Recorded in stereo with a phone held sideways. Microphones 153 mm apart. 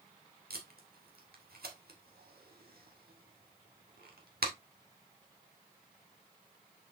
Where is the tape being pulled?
80° right, 1.9 m.